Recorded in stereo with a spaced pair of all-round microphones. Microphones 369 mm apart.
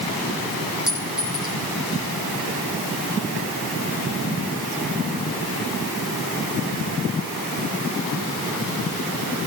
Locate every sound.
0.9 s a clink: centre (ahead or behind), 9 m